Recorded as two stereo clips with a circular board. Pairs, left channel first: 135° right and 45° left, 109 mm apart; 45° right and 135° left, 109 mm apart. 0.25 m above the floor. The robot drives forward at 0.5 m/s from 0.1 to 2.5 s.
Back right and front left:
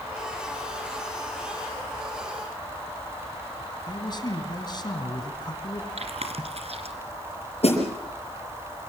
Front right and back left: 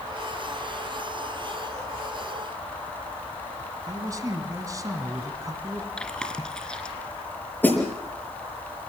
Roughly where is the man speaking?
Behind.